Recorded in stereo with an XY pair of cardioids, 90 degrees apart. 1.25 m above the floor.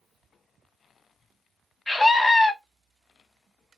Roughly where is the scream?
Ahead.